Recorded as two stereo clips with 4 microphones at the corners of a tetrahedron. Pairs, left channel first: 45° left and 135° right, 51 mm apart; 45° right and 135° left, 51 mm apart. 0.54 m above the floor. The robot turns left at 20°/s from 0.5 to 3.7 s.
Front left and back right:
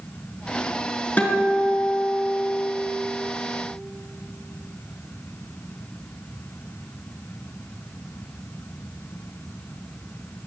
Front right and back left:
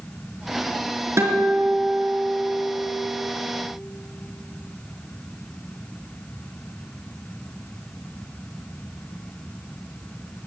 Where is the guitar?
105° left, 4 m; by 2.7 s 75° left, 4 m.